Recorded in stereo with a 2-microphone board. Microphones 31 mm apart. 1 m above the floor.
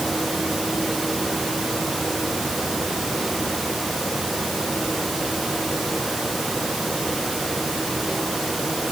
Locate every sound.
Only background noise.